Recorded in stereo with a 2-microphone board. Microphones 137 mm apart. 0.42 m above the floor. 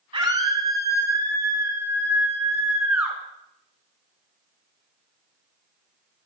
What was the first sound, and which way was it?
A scream, 40° right (ahead or behind).